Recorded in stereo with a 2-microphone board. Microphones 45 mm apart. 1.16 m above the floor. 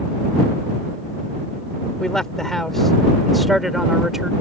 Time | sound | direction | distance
2.0 | a man speaking | 15° left (ahead or behind) | ?